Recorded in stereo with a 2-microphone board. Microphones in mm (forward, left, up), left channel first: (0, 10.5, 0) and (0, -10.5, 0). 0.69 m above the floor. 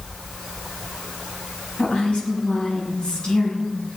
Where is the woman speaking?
65° left (ahead or behind), 6 m.